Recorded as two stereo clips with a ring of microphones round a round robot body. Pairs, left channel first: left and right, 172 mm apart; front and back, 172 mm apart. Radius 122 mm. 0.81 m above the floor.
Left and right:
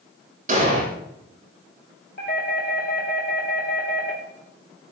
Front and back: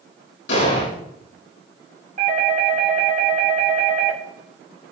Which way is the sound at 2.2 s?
145° left.